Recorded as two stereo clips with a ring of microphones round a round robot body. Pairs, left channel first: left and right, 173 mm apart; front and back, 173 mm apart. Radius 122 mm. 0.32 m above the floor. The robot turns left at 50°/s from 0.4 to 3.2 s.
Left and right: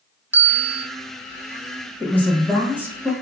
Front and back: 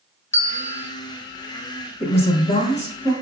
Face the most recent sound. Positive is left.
turn(degrees=-35)